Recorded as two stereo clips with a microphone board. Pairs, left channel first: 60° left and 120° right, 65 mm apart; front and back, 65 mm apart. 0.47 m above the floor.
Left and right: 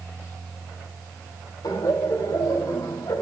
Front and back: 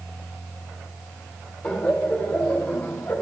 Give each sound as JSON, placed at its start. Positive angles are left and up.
{"t": 1.6, "sound": "laughter", "azimuth_deg": 75, "distance_m": 3.0}